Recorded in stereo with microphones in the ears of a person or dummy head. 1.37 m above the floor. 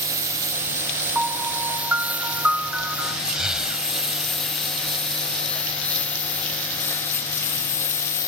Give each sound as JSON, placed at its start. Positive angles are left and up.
{"t": 0.0, "sound": "a lawn mower", "side_deg": -15}
{"t": 1.1, "sound": "a piano", "side_deg": -5}
{"t": 3.3, "sound": "breathing", "side_deg": -5}